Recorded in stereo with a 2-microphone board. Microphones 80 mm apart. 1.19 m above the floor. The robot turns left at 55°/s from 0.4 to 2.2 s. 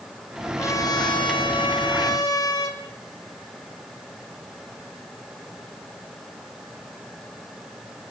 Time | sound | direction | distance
0.6 | a trumpet | 145° left | 5 m